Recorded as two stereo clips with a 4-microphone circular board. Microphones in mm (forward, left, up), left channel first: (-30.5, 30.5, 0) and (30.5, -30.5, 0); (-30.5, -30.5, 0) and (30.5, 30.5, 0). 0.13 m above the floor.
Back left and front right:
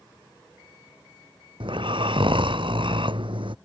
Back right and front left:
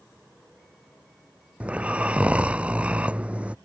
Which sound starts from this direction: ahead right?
Snoring, at 1.6 s.